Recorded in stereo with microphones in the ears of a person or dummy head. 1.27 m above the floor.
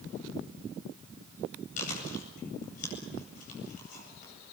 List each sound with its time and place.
1.8 s chewing: 45° left (ahead or behind), 8.5 m